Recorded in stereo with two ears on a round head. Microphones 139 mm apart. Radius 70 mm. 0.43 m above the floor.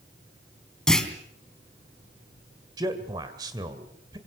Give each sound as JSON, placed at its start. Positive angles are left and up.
{"t": 0.9, "sound": "a clunk", "side_deg": 5, "distance_m": 3.0}
{"t": 2.8, "sound": "a man speaking", "side_deg": -25, "distance_m": 2.0}